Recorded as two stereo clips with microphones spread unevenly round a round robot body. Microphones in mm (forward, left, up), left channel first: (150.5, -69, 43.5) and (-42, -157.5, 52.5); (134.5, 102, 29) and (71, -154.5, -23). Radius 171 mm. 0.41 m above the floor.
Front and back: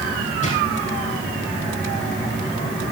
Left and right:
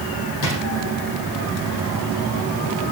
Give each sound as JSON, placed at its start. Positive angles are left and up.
{"t": 0.4, "sound": "a drawer", "azimuth_deg": 95, "distance_m": 6.5}